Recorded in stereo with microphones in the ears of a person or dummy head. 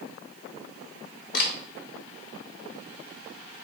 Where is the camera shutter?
65° left (ahead or behind), 1.4 m.